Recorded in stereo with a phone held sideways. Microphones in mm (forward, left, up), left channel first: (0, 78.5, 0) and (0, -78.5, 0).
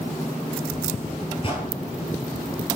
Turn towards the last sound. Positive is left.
turn(degrees=40)  # may be behind; listen again after turning